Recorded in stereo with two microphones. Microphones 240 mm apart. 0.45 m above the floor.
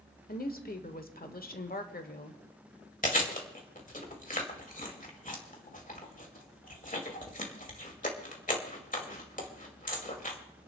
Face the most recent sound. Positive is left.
turn(degrees=35)  # may be behind; listen again after turning